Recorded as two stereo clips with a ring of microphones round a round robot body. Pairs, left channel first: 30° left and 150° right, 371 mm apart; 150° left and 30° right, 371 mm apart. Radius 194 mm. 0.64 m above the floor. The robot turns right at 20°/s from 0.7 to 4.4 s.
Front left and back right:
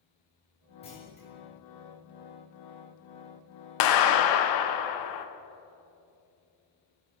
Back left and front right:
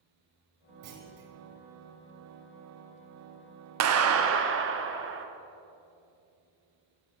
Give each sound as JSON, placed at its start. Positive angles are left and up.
{"t": 0.8, "sound": "a clunk", "azimuth_deg": -45, "distance_m": 1.9}
{"t": 3.8, "sound": "a clap", "azimuth_deg": 10, "distance_m": 0.7}